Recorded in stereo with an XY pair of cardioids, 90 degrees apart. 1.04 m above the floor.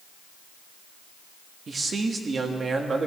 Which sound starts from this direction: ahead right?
A man speaking, at 1.7 s.